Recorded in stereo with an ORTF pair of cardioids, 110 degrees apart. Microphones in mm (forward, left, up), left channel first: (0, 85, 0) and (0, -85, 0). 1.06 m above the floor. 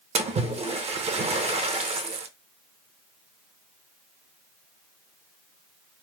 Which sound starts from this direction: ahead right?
A splash, at 0.1 s.